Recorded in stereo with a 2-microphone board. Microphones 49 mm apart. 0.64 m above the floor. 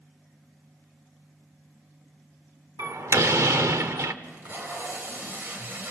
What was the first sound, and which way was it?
A door slam, 80° right.